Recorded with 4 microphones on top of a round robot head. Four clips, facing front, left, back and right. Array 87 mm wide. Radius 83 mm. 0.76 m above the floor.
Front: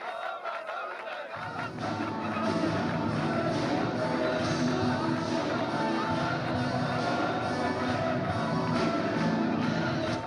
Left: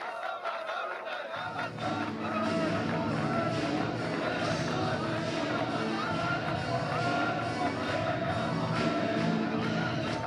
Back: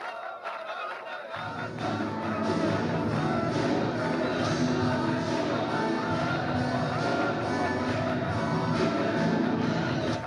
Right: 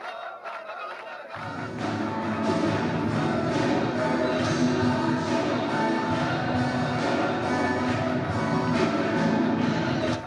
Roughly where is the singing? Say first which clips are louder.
Right 3 dB, back 3 dB; right.